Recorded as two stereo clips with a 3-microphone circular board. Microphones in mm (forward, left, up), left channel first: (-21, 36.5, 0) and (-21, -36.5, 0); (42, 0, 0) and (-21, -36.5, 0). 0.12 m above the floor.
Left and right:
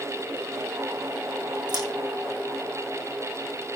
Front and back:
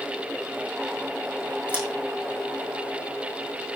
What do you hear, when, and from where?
1.7 s scissors: 80° right, 6 m